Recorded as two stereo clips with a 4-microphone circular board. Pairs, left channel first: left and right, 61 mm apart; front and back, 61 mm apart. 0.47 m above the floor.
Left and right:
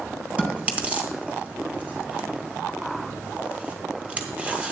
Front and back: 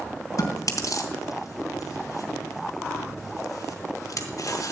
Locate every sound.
0.4 s chewing: 20° right, 2 m